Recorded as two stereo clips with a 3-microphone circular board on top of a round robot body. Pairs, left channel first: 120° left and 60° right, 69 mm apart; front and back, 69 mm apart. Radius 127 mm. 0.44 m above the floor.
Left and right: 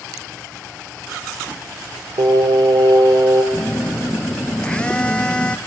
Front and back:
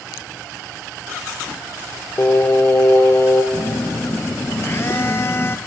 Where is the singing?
55° right, 1.7 m.